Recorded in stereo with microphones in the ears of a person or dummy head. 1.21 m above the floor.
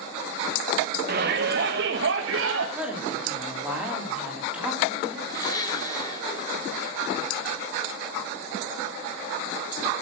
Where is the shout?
40° right (ahead or behind), 1.7 m; by 2.6 s 60° right (ahead or behind), 2.5 m.